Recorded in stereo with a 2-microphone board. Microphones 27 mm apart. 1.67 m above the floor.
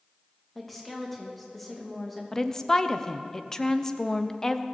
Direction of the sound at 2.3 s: 20° left (ahead or behind).